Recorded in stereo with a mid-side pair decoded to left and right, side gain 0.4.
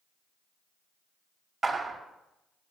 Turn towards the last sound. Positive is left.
turn(degrees=-35)